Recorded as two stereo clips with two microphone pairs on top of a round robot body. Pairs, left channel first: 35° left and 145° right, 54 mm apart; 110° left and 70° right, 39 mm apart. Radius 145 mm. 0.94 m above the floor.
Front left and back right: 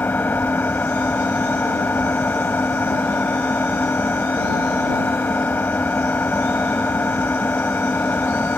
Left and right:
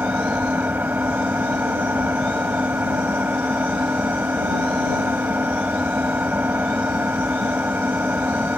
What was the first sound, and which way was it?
An engine running, 20° right.